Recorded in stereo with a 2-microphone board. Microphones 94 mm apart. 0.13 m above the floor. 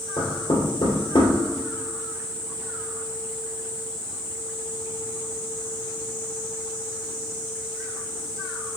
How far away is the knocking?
About 2.5 m.